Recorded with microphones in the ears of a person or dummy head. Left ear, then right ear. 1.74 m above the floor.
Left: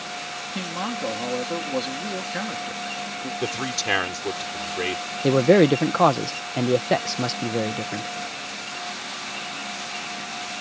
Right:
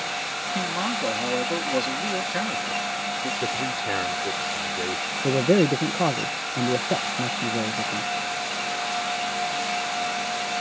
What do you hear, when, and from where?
0.6 s a man speaking: centre (ahead or behind)
3.4 s a man speaking: 65° left (ahead or behind)
5.2 s a man speaking: 60° left (ahead or behind)